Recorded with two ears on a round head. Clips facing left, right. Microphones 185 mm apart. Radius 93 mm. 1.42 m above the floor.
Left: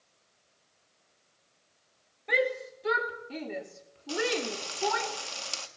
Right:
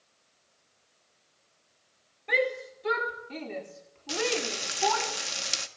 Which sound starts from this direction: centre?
A shout, at 2.3 s.